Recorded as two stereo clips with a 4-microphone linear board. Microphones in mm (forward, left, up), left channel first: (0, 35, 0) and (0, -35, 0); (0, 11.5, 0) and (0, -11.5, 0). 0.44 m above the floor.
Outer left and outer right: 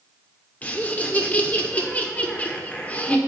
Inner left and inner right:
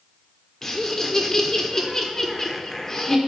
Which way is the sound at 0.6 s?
20° left (ahead or behind).